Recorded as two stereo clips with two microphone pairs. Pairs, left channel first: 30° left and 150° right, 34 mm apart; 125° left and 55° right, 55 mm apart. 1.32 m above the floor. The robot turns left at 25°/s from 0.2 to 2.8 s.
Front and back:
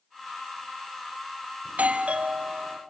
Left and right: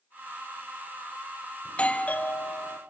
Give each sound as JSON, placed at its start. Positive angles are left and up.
{"t": 1.6, "sound": "a doorbell", "azimuth_deg": -170, "distance_m": 0.8}